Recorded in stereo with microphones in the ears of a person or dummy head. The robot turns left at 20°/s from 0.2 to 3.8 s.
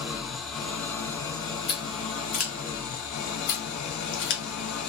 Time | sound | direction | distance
0.0 | an engine running | straight behind | 1.4 m
1.7 | scissors | 35° left (ahead or behind) | 1.0 m